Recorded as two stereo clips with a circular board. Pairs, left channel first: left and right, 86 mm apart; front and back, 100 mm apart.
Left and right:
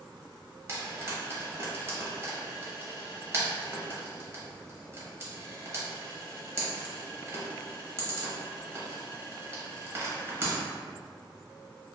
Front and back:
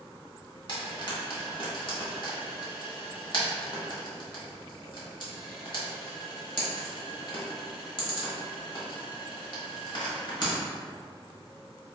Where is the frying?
35° right, 0.9 m.